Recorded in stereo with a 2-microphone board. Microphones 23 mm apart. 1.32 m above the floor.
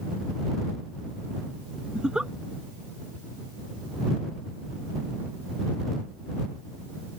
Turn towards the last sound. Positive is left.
turn(degrees=-40)  # may be behind; listen again after turning